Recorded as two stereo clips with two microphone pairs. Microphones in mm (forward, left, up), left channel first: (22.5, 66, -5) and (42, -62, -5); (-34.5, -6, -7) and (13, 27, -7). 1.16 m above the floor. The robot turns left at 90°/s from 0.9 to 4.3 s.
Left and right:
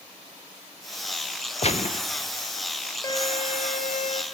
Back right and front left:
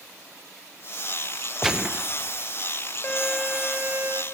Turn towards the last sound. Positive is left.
turn(degrees=50)